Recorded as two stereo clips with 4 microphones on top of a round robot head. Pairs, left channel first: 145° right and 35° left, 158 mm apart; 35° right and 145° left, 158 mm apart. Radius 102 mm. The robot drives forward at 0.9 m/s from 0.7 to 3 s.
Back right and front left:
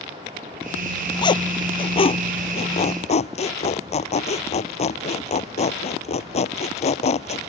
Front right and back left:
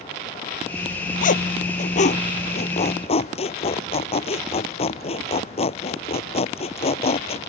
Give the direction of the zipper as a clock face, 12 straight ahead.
3 o'clock.